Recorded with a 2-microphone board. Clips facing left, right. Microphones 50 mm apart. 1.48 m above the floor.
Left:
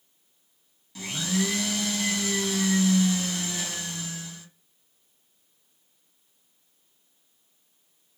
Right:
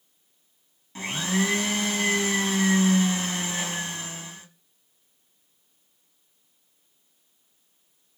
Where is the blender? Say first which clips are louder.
Right 2 dB; 35° right (ahead or behind), 1.6 m.